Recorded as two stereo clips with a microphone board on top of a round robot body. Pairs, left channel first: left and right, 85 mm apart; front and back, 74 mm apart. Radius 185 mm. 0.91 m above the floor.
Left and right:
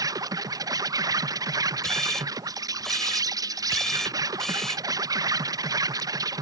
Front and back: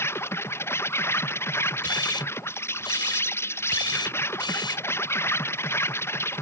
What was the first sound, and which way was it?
An insect, 50° right.